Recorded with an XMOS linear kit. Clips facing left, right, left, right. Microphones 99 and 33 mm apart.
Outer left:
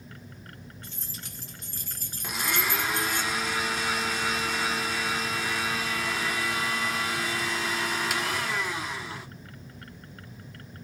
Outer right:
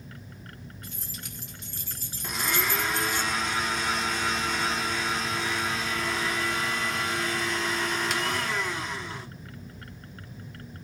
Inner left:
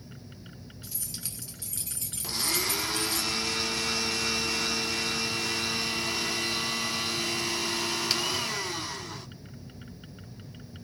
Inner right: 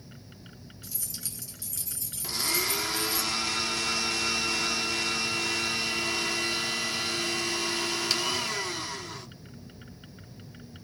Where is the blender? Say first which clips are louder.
Outer right 1 dB, inner right 1 dB; 5° left (ahead or behind), 0.9 m.